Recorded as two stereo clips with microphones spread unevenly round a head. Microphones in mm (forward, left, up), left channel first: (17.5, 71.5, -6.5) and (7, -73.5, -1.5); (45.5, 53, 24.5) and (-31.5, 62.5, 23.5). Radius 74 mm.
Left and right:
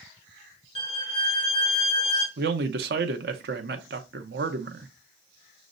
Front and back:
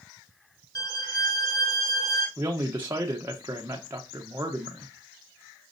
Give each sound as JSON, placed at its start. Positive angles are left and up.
{"t": 0.8, "sound": "a violin", "azimuth_deg": 35, "distance_m": 1.3}
{"t": 2.4, "sound": "a man speaking", "azimuth_deg": -120, "distance_m": 0.6}